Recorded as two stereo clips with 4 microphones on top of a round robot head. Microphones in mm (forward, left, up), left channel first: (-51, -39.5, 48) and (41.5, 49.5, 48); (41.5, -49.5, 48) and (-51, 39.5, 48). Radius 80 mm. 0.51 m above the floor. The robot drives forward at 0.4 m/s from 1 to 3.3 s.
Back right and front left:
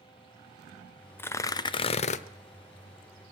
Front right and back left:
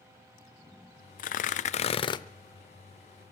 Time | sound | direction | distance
1.2 | tearing paper | 60° right | 0.6 m